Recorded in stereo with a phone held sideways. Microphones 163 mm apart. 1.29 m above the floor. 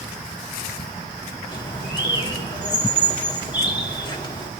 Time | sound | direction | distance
1.5 | a bird | 25° left (ahead or behind) | 2 m